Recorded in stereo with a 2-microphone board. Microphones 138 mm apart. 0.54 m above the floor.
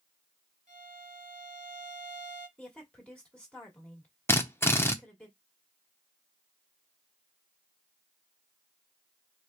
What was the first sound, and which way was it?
A violin, 65° right (ahead or behind).